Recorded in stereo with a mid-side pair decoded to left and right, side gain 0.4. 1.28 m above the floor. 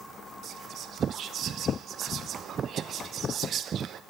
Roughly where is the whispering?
Right.